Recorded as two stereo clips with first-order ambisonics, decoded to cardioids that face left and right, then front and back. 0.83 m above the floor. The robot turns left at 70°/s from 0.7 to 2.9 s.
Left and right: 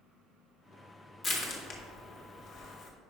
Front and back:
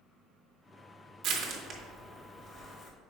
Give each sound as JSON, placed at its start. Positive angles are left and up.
{"t": 1.2, "sound": "crushing", "azimuth_deg": 145, "distance_m": 1.2}